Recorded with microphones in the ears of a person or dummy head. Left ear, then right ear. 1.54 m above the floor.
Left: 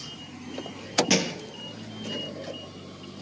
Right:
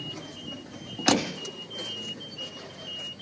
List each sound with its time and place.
1.1 s a thud: 60° left (ahead or behind), 3 m